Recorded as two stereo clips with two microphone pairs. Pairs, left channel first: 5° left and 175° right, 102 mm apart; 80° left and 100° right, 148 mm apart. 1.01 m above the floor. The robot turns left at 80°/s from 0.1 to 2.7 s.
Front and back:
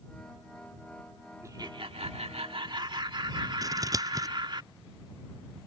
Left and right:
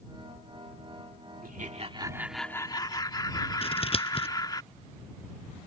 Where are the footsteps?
No footsteps in this recording.